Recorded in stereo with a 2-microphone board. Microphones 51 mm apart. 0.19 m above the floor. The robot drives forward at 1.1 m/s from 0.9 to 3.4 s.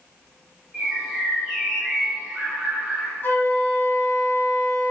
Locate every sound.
0.7 s a bird: centre (ahead or behind), 5 m
3.2 s a flute: 40° left (ahead or behind), 2 m